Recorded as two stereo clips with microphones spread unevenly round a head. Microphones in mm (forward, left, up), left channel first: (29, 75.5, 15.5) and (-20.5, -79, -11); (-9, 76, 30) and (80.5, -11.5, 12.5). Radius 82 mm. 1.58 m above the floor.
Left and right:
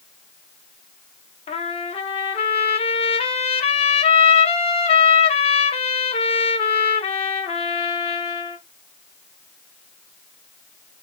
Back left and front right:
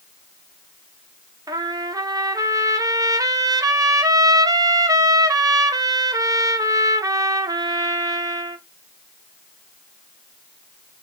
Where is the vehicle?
I don't hear a vehicle.